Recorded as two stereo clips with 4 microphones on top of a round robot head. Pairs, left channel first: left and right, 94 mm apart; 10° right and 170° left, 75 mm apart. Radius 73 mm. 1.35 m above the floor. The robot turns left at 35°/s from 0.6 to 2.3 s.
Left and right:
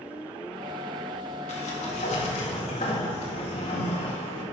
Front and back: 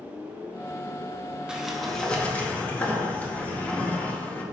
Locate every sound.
1.5 s a sliding door: 90° left, 1.9 m; by 4.4 s 65° left, 1.9 m